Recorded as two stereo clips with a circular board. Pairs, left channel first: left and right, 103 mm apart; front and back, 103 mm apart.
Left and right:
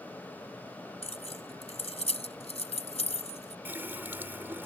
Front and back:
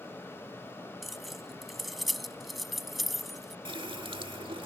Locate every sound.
1.0 s keys jangling: 90° left
3.6 s a running tap: 160° right